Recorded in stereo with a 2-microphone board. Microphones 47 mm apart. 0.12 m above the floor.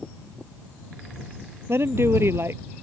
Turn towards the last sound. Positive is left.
turn(degrees=-60)  # may be behind; listen again after turning